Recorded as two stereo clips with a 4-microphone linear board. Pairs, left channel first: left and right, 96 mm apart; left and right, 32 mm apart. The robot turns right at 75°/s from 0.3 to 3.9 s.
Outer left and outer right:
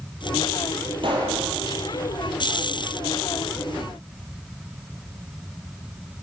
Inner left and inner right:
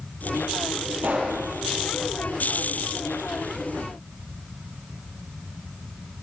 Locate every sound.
1.0 s a pop: 60° right (ahead or behind), 6.5 m; by 1.4 s 35° right (ahead or behind), 6.5 m